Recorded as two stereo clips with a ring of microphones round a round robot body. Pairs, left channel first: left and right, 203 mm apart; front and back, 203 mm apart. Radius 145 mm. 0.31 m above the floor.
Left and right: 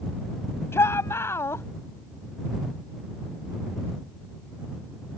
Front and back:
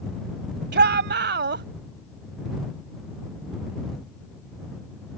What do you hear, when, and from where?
0.7 s a shout: 170° left